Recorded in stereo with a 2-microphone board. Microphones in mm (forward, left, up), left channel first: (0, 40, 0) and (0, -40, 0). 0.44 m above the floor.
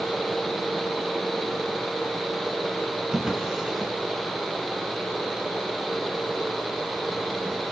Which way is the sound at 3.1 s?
10° right (ahead or behind).